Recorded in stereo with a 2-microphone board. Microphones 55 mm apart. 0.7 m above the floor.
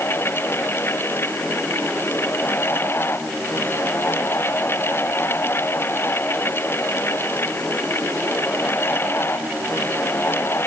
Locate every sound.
Only background noise.